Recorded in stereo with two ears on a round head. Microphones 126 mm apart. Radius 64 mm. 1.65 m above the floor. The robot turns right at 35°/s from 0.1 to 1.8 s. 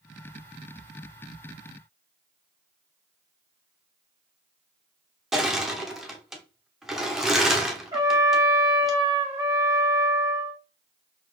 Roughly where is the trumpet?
Right.